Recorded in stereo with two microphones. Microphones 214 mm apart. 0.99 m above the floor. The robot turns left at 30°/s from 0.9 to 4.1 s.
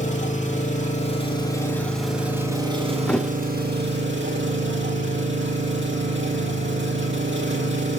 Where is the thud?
5° left (ahead or behind), 1.0 m; by 3.3 s centre (ahead or behind), 1.0 m.